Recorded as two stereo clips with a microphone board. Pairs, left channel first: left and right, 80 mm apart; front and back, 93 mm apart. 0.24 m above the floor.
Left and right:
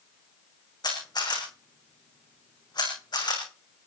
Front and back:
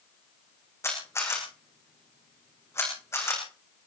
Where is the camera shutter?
60° left, 4.5 m.